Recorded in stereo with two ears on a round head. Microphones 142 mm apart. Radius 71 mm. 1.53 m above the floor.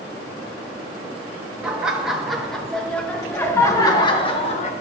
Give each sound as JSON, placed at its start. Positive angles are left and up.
{"t": 1.6, "sound": "laughter", "side_deg": -5, "distance_m": 3.0}